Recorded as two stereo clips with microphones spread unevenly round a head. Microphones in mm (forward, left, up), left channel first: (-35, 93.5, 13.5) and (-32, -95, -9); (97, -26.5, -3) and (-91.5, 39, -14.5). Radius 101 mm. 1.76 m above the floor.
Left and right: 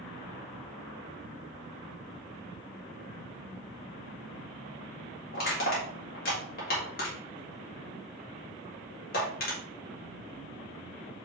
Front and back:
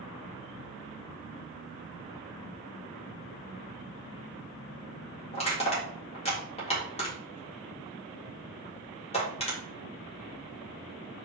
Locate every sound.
5.3 s crushing: 40° left, 3.5 m